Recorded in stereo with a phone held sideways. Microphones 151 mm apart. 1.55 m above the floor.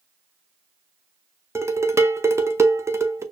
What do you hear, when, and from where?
1.6 s dishes clattering: 20° right (ahead or behind), 0.7 m